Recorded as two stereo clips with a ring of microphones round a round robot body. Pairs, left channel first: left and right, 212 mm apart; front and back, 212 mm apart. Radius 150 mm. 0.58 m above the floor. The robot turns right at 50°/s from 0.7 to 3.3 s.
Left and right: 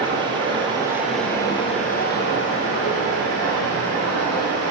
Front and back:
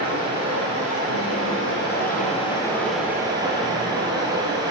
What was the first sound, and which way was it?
Running water, 20° right.